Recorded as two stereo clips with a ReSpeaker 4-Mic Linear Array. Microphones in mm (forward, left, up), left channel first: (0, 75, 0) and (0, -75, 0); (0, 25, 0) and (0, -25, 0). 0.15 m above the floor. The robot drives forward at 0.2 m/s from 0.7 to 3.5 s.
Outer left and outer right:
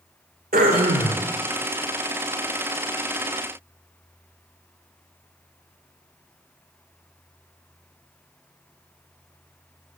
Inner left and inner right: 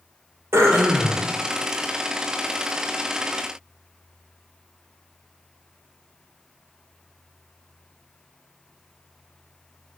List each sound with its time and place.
0.5 s throat clearing: 80° right, 0.5 m; by 1.2 s 75° right (ahead or behind), 0.6 m